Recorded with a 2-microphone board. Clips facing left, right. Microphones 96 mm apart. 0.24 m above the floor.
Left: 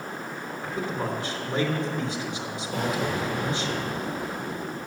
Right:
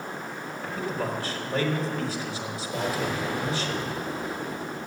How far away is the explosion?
About 5 m.